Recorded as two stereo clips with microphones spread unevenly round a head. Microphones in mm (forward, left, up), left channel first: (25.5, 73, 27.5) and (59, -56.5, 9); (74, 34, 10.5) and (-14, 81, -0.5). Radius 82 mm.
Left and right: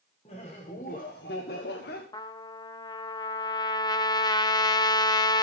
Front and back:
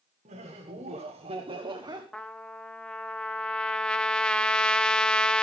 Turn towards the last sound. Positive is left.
turn(degrees=50)